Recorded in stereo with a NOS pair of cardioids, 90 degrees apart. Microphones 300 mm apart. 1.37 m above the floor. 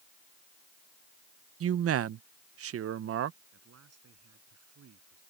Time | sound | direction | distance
1.6 | a man speaking | 50° right | ?
3.5 | a man speaking | 55° right | ?